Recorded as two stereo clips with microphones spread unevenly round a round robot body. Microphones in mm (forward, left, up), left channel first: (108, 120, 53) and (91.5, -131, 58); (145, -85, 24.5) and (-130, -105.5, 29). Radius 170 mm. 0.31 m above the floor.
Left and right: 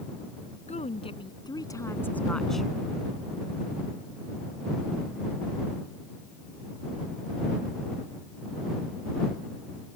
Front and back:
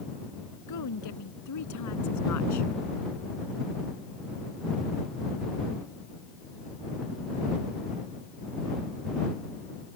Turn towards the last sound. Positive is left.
turn(degrees=-5)